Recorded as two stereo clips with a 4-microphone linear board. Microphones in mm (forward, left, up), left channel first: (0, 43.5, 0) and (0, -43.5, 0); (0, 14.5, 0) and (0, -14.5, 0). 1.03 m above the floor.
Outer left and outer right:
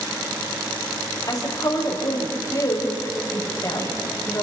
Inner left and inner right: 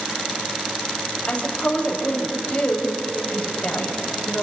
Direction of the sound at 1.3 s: 45° left (ahead or behind).